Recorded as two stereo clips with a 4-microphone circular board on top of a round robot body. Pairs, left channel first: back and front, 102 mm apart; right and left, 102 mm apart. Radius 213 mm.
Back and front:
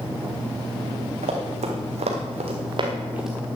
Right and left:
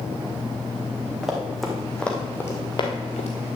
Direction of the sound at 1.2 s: 5° left.